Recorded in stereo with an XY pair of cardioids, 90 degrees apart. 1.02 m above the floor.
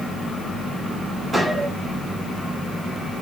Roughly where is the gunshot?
Ahead.